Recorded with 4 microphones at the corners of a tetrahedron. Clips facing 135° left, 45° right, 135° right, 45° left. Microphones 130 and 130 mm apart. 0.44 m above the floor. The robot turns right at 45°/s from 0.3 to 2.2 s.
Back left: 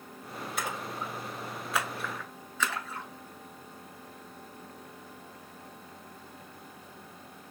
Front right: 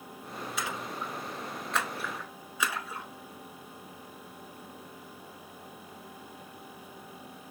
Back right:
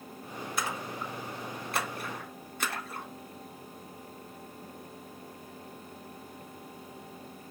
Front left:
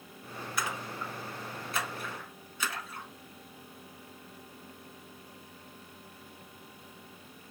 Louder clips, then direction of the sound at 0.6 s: Back left 1 dB, back right 1 dB; 165° left.